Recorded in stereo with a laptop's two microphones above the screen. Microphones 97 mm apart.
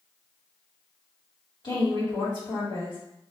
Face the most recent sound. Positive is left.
turn(degrees=50)  # may be behind; listen again after turning